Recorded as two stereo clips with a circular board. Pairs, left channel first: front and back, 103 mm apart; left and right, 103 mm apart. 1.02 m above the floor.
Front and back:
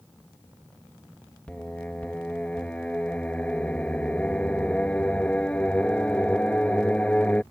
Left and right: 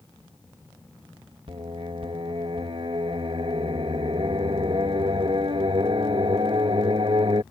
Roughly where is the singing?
Right.